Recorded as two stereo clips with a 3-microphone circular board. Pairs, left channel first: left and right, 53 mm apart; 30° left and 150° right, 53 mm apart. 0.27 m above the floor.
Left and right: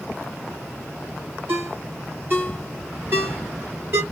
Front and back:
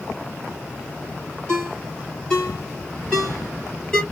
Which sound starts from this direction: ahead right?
A ringtone, at 1.5 s.